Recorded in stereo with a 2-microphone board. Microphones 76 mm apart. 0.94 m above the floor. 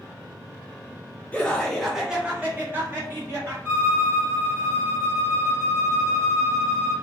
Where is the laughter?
15° left (ahead or behind), 0.8 m; by 3.5 s 40° right (ahead or behind), 1.2 m.